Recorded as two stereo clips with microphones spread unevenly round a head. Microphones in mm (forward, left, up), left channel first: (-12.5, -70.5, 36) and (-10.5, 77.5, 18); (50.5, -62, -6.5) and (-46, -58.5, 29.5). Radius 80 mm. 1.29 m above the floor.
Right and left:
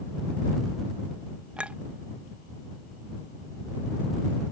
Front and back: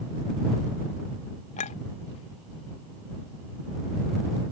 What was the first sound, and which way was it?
A clink, 5° left.